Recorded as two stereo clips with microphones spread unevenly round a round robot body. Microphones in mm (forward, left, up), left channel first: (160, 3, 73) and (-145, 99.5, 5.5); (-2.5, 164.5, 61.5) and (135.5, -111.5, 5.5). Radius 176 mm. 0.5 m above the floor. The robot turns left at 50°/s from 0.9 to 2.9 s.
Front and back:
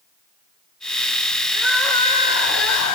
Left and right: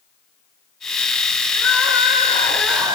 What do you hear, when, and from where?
1.5 s crying: 80° left, 7 m; by 3.0 s 15° left, 7 m